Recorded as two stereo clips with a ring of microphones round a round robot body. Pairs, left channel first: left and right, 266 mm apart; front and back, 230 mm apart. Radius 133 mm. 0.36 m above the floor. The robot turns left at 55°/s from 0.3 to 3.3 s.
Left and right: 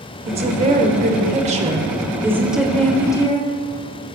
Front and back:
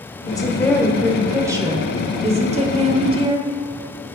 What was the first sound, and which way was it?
A woman speaking, 50° right.